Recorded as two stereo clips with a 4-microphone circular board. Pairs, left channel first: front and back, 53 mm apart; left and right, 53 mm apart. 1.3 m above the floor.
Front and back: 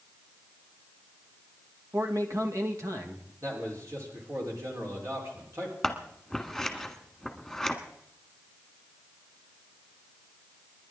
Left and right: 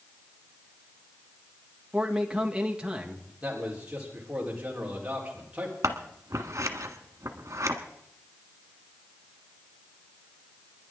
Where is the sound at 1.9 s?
165° right, 2 m.